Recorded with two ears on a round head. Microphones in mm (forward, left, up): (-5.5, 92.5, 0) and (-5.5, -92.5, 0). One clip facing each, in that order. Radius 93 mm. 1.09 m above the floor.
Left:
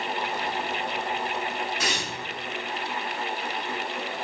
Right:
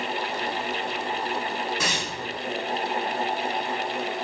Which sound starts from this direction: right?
Tearing paper, at 1.8 s.